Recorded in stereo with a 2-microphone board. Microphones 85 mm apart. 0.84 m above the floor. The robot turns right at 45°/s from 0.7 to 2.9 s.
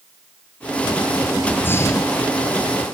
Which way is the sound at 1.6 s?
20° left.